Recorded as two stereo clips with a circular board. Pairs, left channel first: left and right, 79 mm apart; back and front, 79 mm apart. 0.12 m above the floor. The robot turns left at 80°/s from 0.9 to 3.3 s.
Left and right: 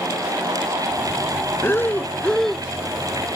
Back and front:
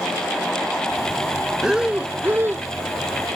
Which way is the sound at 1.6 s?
80° left.